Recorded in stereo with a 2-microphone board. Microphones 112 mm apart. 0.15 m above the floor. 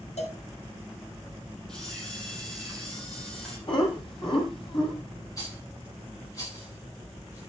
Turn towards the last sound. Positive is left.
turn(degrees=30)  # may be behind; listen again after turning